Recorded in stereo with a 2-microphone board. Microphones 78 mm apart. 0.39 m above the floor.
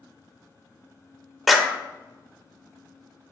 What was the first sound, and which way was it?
A clap, centre (ahead or behind).